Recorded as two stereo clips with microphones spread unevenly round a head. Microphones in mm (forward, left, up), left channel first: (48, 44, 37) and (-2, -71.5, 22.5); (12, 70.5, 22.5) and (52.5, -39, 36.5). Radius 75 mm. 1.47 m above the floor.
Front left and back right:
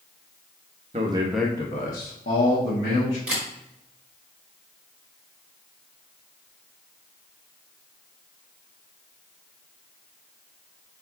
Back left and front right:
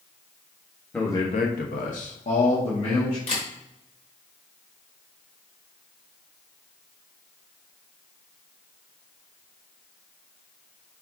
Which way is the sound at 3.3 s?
160° left.